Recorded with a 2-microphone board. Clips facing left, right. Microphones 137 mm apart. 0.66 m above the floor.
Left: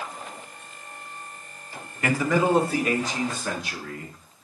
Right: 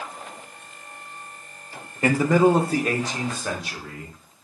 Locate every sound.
2.0 s a man speaking: 30° right (ahead or behind), 0.6 m; by 4.2 s 35° right (ahead or behind), 2 m